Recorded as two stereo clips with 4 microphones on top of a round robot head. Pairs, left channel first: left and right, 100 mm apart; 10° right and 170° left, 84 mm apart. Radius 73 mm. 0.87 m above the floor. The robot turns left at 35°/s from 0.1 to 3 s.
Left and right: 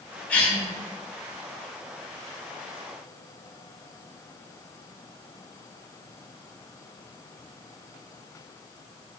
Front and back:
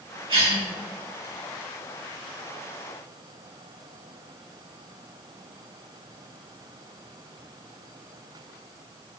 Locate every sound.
0.3 s a cough: 160° left, 3 m; by 0.7 s 150° left, 3 m